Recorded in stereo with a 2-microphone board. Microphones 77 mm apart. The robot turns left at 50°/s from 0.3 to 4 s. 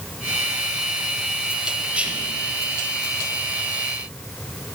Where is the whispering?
15° right (ahead or behind), 1.2 m; by 2.3 s 20° right (ahead or behind), 1.2 m.